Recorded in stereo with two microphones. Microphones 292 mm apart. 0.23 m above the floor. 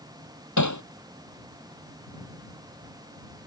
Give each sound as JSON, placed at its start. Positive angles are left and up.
{"t": 0.6, "sound": "hammering", "side_deg": 75}